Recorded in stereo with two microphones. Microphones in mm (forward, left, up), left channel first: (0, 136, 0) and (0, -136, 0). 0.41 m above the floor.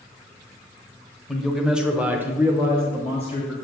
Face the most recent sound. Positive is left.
turn(degrees=-10)  # may be behind; listen again after turning